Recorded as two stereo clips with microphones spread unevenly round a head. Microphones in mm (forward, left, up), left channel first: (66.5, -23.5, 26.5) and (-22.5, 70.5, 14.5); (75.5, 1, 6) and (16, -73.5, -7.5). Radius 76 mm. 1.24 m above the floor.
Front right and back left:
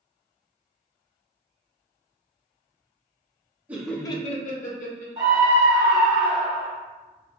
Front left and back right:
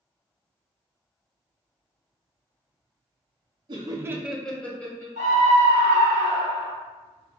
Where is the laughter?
155° right, 0.7 m; by 5.1 s 20° right, 1.2 m.